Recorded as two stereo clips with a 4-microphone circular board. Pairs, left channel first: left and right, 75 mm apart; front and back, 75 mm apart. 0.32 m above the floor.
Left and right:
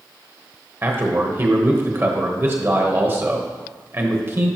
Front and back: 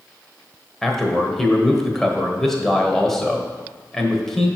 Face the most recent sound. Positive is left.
turn(degrees=-80)